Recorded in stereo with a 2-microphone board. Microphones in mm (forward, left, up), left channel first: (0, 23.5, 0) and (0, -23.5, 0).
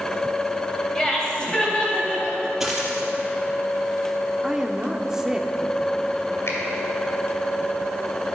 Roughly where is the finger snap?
Left.